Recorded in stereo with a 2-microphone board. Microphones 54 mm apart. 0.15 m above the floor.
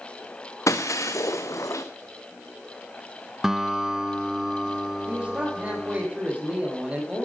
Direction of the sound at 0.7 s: 70° left (ahead or behind).